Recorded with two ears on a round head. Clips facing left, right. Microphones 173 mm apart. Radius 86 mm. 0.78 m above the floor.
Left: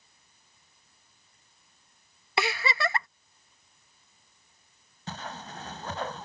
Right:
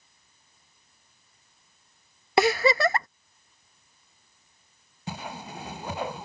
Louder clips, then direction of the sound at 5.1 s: Right 3 dB; 10° right (ahead or behind).